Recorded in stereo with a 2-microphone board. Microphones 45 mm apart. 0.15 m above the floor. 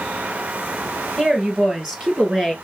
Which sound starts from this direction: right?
A woman speaking, at 1.2 s.